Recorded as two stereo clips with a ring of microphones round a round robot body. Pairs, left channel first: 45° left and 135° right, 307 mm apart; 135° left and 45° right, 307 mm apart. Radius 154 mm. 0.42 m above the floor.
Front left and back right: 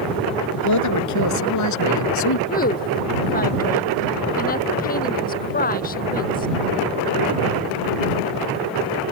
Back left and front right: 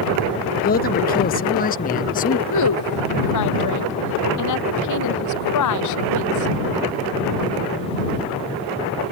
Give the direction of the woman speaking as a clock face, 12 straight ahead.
8 o'clock.